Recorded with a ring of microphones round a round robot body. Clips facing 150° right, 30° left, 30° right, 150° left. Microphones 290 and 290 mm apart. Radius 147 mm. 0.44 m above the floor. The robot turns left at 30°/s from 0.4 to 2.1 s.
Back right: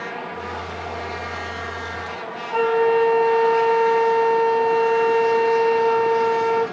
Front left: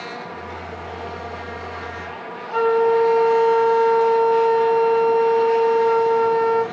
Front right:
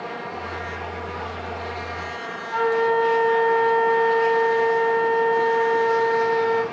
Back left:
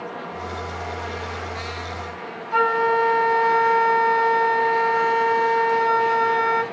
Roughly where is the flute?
Left.